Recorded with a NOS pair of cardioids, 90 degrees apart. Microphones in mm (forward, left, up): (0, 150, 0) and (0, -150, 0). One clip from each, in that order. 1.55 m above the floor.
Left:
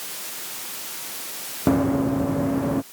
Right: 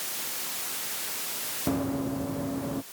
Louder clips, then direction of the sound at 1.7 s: Left 10 dB; 55° left.